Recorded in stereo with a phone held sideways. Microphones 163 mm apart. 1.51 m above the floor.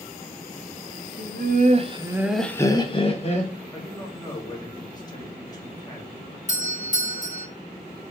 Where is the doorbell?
50° left (ahead or behind), 0.9 m.